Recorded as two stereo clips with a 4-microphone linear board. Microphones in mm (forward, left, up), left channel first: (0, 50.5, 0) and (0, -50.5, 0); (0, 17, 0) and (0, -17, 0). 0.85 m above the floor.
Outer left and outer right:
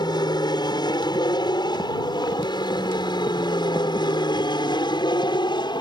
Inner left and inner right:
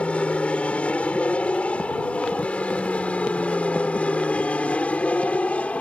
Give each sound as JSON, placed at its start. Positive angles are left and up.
{"t": 0.0, "sound": "an aircraft", "side_deg": 45}